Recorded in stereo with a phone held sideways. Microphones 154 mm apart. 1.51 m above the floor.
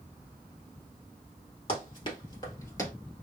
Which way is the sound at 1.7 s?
35° left (ahead or behind).